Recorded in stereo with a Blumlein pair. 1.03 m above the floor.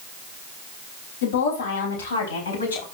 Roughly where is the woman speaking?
Ahead left.